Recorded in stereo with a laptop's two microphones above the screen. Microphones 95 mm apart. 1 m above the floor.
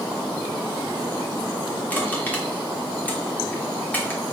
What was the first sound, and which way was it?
Crushing, 20° left (ahead or behind).